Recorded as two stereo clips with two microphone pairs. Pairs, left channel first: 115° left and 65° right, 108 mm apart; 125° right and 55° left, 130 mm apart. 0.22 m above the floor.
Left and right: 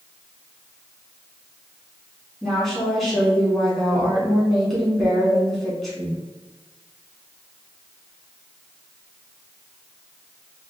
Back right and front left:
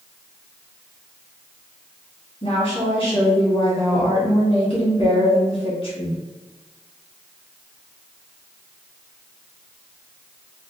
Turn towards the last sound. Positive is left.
turn(degrees=-155)